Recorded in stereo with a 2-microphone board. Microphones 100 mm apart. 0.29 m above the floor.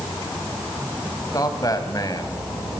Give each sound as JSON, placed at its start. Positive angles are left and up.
{"t": 1.3, "sound": "a man speaking", "side_deg": 35, "distance_m": 2.5}